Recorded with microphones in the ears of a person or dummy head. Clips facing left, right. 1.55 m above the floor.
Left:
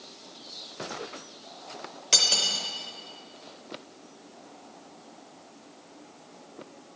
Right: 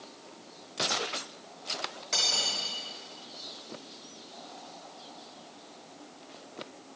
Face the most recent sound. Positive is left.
turn(degrees=45)  # may be behind; listen again after turning